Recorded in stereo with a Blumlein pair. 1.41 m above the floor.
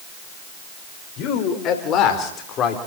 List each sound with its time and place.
1.2 s a man speaking: 35° left, 5 m; by 2.8 s 30° left, 4 m